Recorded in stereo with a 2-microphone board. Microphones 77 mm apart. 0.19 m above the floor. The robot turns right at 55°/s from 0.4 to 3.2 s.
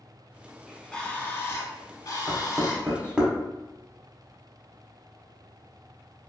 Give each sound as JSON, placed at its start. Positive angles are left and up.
{"t": 0.7, "sound": "a bird", "azimuth_deg": 0, "distance_m": 0.6}
{"t": 2.3, "sound": "knocking", "side_deg": -20, "distance_m": 0.8}